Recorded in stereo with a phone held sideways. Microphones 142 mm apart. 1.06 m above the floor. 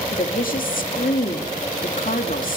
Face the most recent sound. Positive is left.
turn(degrees=70)  # may be behind; listen again after turning